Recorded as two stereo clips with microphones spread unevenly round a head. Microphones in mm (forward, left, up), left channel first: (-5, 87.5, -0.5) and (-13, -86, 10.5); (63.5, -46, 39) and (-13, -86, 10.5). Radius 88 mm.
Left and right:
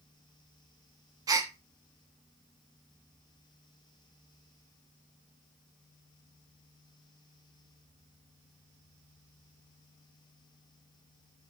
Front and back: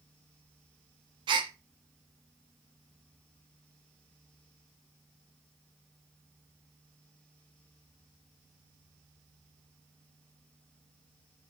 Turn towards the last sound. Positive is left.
turn(degrees=-140)